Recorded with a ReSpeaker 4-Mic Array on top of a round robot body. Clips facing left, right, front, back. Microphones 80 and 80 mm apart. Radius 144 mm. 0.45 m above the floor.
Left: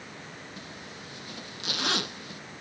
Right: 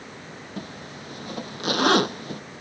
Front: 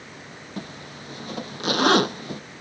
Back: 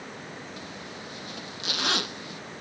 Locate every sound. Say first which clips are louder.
0.6 s a zipper: right 6 dB, front 3 dB; 45° right